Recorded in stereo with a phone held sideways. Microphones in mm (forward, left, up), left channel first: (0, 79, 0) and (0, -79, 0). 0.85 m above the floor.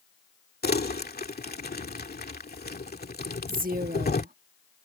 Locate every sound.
0.6 s crumpling: 80° left
3.5 s a woman speaking: 65° right (ahead or behind)